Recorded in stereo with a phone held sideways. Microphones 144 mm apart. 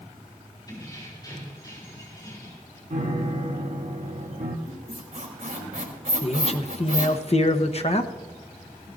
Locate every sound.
0.7 s keys jangling: 30° left (ahead or behind), 7 m
2.9 s a piano: 65° right (ahead or behind), 1.5 m
4.7 s a squeak: 85° right, 3.5 m
6.2 s a man speaking: 45° left (ahead or behind), 0.9 m